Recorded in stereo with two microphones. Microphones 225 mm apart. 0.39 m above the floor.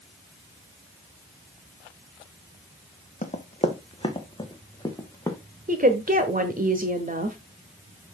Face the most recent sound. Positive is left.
turn(degrees=-40)  # may be behind; listen again after turning